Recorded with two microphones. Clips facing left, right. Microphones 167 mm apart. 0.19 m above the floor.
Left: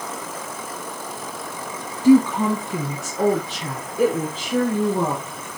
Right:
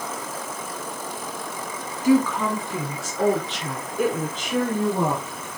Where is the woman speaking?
30° left (ahead or behind), 1.4 m; by 5.2 s centre (ahead or behind), 3 m.